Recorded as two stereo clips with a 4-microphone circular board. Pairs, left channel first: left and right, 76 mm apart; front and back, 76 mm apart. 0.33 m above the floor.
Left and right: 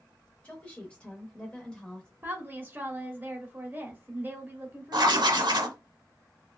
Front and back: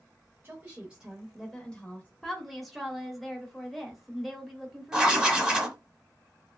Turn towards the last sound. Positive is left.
turn(degrees=-100)